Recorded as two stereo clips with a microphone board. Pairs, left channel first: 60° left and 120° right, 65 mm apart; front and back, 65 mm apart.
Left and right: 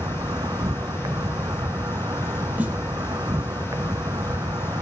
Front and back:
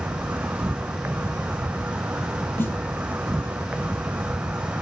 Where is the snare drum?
50° right, 4.5 m.